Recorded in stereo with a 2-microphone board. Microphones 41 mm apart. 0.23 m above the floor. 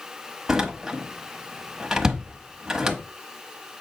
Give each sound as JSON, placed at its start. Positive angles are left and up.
{"t": 0.5, "sound": "a door slam", "side_deg": -10, "distance_m": 1.0}